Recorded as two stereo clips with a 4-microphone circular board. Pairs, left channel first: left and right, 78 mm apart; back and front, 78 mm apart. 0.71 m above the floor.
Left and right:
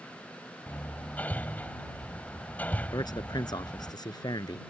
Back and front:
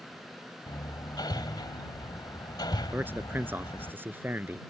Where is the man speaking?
65° left.